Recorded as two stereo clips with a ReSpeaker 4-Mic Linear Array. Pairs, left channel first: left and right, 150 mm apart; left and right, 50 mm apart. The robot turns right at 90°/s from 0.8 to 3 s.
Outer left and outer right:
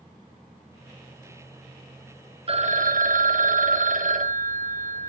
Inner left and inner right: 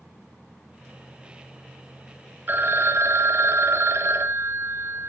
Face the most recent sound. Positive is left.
turn(degrees=-85)